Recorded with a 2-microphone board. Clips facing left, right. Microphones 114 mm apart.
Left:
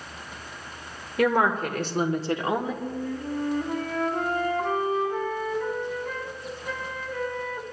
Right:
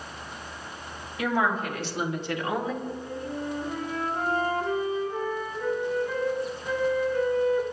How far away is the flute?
About 2 m.